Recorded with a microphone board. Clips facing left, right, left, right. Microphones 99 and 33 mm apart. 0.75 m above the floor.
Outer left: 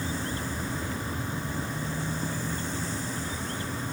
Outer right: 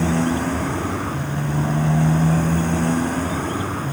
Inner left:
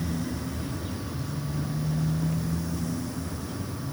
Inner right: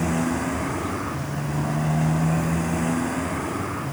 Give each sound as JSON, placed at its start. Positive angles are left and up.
{"t": 0.0, "sound": "a motorcycle", "side_deg": -70}